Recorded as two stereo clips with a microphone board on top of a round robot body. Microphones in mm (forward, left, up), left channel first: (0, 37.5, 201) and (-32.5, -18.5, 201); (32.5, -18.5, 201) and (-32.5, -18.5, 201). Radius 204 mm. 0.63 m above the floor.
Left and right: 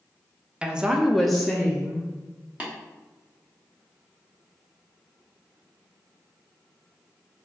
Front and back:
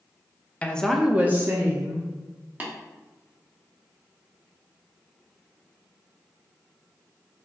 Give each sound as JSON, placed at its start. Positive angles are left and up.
{"t": 0.6, "sound": "a woman speaking", "azimuth_deg": -55, "distance_m": 0.7}
{"t": 2.6, "sound": "tapping", "azimuth_deg": -160, "distance_m": 1.1}